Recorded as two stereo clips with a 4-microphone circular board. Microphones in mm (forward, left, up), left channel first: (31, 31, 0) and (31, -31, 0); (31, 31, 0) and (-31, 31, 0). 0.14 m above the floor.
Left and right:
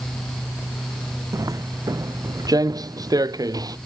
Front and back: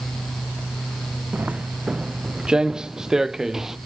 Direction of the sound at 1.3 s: 115° right.